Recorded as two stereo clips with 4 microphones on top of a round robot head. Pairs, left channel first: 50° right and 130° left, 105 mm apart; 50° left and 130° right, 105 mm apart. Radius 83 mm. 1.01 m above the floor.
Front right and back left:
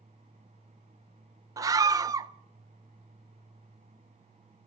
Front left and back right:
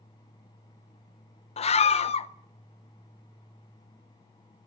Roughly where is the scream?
Left.